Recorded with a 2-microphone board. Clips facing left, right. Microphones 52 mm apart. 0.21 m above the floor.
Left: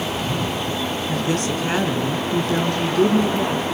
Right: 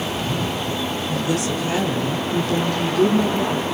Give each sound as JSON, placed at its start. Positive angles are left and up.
{"t": 1.1, "sound": "a woman speaking", "side_deg": 40, "distance_m": 1.5}